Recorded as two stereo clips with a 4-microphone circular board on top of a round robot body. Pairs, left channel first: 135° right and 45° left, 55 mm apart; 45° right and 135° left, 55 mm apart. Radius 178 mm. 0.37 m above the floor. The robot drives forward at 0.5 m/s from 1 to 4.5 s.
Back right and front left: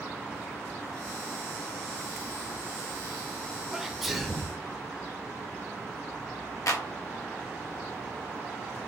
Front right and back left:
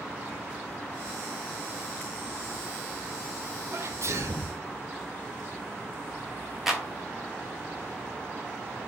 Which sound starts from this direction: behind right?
A clap, at 6.7 s.